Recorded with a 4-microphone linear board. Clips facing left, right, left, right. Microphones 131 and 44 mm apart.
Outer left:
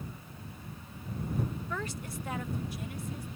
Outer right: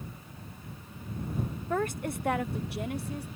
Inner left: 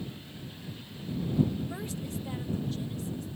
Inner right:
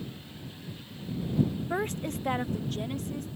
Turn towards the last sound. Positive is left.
turn(degrees=-70)  # may be behind; listen again after turning